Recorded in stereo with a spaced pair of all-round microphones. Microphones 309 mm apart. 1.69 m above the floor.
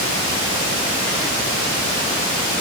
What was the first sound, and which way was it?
Only background noise.